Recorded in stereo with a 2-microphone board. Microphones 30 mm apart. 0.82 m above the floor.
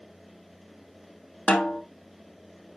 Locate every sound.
1.5 s a snare drum: 60° left (ahead or behind), 1.3 m